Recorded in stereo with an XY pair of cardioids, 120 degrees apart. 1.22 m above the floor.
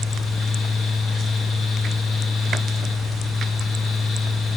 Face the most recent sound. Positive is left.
turn(degrees=55)